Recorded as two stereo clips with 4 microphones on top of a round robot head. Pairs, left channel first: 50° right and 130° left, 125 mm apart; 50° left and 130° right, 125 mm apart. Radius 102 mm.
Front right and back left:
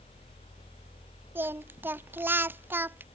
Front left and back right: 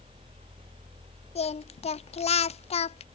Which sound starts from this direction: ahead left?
Singing, at 1.4 s.